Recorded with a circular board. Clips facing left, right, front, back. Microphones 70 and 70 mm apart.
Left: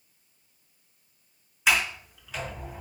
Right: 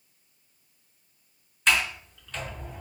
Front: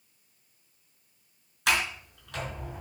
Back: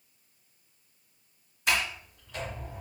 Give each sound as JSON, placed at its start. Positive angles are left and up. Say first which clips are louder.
{"t": 1.7, "sound": "a sliding door", "louder": "even, front 2 dB", "azimuth_deg": 5, "distance_m": 3.5}